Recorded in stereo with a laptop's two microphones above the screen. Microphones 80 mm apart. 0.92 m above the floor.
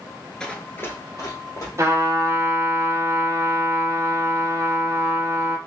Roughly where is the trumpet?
Right.